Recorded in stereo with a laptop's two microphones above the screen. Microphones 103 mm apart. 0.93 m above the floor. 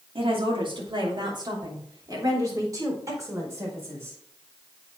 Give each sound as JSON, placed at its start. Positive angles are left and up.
{"t": 0.1, "sound": "a woman speaking", "side_deg": -60, "distance_m": 2.5}